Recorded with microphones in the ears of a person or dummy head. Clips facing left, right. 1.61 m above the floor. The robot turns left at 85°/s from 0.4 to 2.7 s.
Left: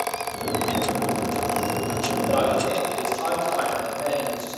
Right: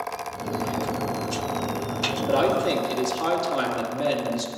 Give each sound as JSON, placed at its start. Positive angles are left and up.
{"t": 2.3, "sound": "a man speaking", "azimuth_deg": -15, "distance_m": 3.0}